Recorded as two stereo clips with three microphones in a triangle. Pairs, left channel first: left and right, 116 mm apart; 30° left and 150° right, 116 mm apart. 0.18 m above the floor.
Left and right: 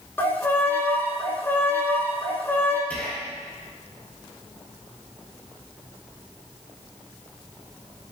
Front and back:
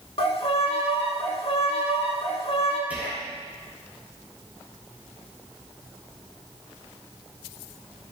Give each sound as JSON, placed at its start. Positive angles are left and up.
{"t": 0.2, "sound": "a violin", "azimuth_deg": 25, "distance_m": 0.6}
{"t": 2.9, "sound": "whispering", "azimuth_deg": 150, "distance_m": 1.5}